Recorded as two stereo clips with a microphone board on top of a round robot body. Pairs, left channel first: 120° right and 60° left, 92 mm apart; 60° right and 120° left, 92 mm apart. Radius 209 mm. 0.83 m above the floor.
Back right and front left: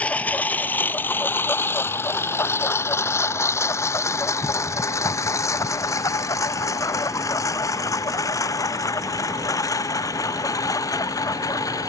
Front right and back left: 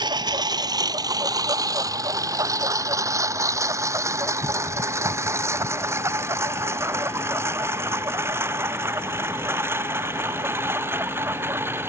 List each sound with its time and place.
0.0 s a lawn mower: 165° left; by 11.9 s 175° right